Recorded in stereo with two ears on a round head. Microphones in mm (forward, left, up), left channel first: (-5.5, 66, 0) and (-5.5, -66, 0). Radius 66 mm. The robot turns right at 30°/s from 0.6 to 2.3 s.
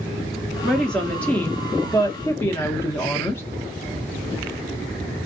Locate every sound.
0.6 s a woman speaking: 5° left (ahead or behind), 0.7 m; by 3.4 s 15° left (ahead or behind), 0.7 m